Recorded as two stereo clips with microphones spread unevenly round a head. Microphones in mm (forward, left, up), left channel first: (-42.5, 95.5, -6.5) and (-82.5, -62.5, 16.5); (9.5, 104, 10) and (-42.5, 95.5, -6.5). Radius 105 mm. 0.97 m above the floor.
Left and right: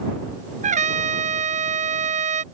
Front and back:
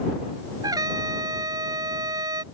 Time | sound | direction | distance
0.6 | a trumpet | 145° right | ?